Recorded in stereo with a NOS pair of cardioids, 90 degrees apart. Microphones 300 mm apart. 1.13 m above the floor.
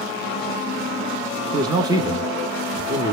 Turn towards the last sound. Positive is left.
turn(degrees=-10)